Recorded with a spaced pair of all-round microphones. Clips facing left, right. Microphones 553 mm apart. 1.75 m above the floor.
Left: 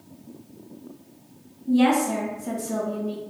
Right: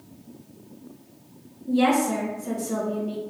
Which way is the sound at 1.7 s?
15° left (ahead or behind).